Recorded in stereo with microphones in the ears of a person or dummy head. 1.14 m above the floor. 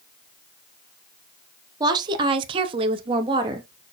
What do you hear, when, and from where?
1.8 s a woman speaking: 25° right (ahead or behind), 0.9 m; by 3.9 s 15° right (ahead or behind), 0.8 m